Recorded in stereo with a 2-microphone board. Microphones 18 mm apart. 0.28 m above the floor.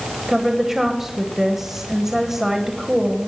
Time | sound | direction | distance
0.3 | a woman speaking | 30° right (ahead or behind) | 1.3 m